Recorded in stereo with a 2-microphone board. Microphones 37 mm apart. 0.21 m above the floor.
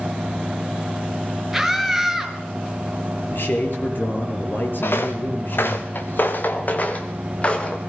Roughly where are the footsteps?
Left.